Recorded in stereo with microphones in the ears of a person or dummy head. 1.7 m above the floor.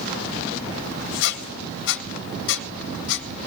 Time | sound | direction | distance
1.2 | a squeak | 65° left (ahead or behind) | 1.7 m